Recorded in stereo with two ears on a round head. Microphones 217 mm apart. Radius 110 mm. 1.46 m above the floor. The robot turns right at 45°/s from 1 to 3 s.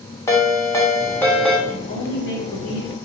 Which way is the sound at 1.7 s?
45° left.